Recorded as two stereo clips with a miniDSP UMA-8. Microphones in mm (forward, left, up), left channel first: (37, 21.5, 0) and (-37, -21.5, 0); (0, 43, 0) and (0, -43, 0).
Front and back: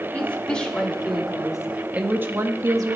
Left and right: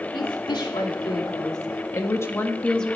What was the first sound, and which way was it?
A woman speaking, 105° left.